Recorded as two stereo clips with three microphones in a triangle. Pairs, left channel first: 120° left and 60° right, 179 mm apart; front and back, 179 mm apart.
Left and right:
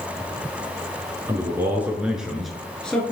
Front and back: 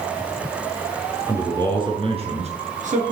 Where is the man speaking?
120° right, 2 m; by 3.1 s 160° right, 2.5 m.